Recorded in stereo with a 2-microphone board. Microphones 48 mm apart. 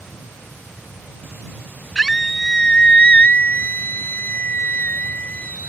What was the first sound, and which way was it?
A scream, 10° left (ahead or behind).